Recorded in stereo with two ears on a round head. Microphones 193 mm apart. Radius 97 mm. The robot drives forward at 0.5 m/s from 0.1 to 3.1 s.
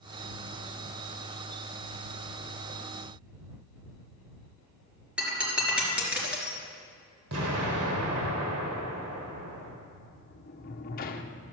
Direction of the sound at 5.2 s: 5° right (ahead or behind).